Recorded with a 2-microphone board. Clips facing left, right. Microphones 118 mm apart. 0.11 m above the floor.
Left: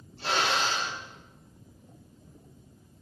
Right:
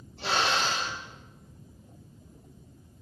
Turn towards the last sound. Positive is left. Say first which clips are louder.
# even
turn(degrees=-75)  # may be behind; listen again after turning